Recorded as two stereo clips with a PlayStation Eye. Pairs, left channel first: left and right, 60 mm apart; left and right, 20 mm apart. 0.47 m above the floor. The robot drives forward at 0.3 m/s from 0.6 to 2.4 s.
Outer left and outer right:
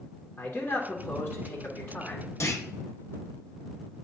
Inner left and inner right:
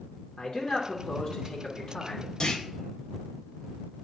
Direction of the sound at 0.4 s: 35° left (ahead or behind).